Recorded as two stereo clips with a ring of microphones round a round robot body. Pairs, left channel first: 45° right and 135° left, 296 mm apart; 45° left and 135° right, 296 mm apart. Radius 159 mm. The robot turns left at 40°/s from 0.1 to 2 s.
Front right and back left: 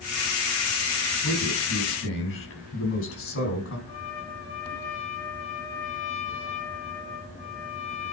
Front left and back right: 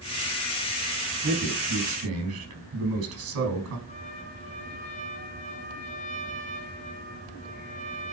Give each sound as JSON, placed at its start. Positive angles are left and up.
{"t": 1.2, "sound": "a man speaking", "azimuth_deg": -60, "distance_m": 5.5}
{"t": 3.9, "sound": "a trumpet", "azimuth_deg": -20, "distance_m": 3.0}